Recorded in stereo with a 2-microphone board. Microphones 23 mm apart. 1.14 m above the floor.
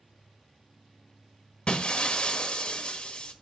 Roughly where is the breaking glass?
Left.